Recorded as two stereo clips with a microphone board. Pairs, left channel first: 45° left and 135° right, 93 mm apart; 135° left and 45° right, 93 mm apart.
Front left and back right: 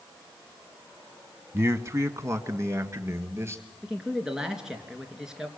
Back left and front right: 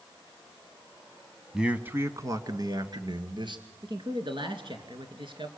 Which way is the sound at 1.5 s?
125° right.